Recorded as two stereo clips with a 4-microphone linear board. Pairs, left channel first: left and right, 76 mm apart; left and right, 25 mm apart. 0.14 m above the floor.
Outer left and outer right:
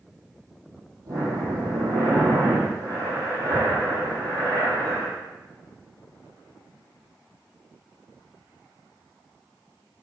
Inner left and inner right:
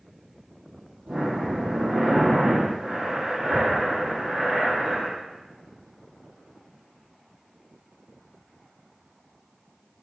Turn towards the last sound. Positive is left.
turn(degrees=-55)  # may be behind; listen again after turning